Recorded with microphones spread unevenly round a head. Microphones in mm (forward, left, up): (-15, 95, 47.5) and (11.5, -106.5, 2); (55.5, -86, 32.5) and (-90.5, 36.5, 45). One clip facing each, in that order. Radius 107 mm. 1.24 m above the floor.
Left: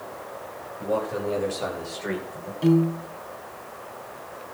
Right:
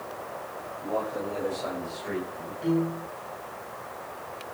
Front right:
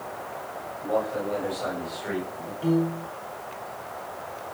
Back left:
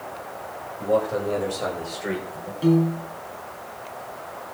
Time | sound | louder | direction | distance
0.8 | a man speaking | left 5 dB, back left 5 dB | 105° left | 7.5 m
2.6 | a piano | left 6 dB, back left 4 dB | 90° left | 3.5 m